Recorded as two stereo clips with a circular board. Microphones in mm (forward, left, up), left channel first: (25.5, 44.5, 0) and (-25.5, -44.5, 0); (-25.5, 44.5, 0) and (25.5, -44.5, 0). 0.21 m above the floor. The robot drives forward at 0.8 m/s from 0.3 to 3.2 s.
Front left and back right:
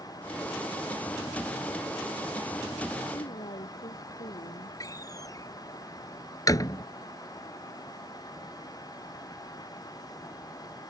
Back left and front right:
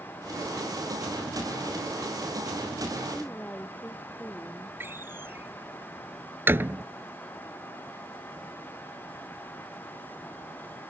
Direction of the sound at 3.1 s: 45° left.